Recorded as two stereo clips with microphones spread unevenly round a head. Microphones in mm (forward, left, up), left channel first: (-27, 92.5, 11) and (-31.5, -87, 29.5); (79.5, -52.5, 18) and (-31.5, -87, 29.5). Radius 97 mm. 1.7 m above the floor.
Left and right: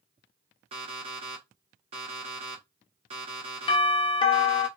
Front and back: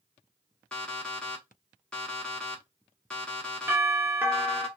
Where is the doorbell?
125° left, 0.6 m.